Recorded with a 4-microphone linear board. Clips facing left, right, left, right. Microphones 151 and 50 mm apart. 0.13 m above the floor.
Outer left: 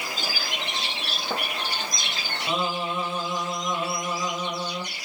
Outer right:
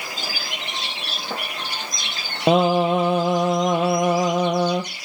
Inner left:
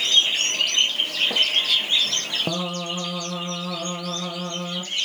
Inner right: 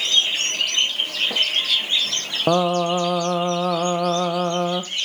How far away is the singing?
About 1.2 m.